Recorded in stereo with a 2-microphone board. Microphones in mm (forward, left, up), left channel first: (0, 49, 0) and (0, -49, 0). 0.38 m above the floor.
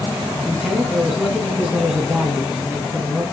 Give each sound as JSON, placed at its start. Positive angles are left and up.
{"t": 0.4, "sound": "a man speaking", "side_deg": -5, "distance_m": 3.0}